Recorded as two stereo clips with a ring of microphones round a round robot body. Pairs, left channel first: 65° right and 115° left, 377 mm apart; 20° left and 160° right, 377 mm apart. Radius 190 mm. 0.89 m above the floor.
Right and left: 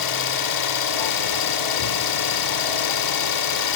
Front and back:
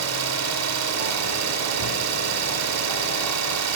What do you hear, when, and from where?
0.0 s an engine running: 105° right, 1.2 m